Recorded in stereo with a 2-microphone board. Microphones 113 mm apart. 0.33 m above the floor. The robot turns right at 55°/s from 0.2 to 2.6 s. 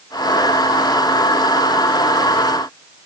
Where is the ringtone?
No ringtone in this recording.